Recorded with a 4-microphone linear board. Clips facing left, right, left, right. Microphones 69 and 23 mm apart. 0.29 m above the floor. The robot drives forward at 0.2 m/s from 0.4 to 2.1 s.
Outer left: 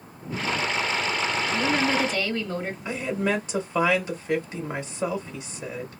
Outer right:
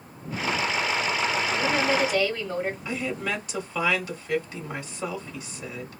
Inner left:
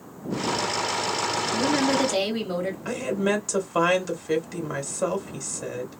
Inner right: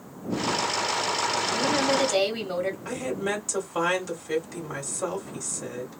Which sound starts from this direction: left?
A woman speaking, at 2.9 s.